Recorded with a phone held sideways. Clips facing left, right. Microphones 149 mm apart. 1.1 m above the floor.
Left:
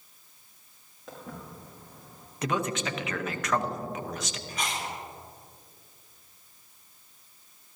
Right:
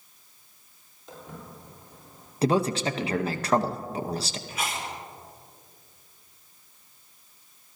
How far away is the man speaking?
About 0.6 m.